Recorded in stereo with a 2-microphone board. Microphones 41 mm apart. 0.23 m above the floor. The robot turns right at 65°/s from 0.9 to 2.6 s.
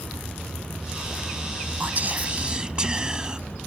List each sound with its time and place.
1.8 s whispering: 80° right; by 3.4 s 30° right